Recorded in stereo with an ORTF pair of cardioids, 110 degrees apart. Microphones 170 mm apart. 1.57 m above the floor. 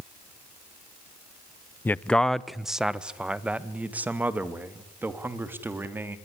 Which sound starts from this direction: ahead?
A man speaking, at 1.9 s.